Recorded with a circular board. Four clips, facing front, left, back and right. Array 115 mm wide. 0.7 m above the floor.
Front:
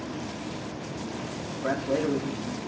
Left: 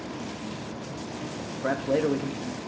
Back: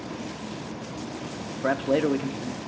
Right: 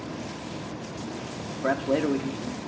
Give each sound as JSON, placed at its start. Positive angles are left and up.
{"t": 1.6, "sound": "a man speaking", "azimuth_deg": -175, "distance_m": 0.6}